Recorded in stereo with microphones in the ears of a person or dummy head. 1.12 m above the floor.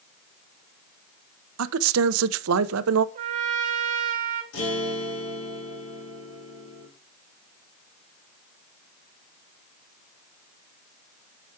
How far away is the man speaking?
About 0.7 m.